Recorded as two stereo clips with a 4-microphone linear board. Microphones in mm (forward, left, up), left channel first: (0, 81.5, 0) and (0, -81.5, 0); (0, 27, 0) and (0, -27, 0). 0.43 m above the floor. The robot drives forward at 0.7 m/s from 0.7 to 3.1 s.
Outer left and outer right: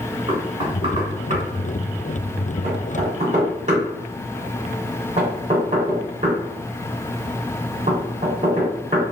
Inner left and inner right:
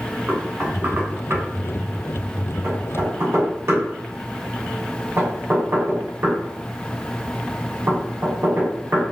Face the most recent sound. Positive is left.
turn(degrees=-45)  # may be behind; listen again after turning